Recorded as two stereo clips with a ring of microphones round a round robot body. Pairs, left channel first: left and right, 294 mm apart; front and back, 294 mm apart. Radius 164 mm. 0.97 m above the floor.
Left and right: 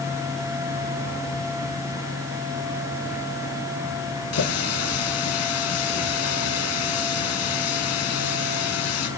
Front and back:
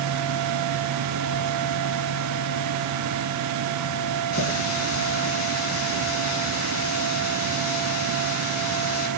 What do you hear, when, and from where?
4.3 s a running tap: 50° left, 7 m